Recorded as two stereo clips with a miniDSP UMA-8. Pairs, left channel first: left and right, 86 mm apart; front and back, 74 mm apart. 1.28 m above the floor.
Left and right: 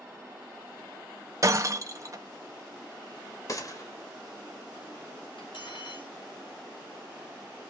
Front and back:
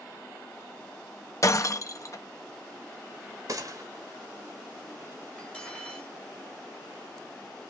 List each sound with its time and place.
1.4 s breaking glass: 40° right, 0.9 m
3.5 s a gunshot: 140° left, 1.5 m
5.4 s cutlery clinking: 75° left, 3.5 m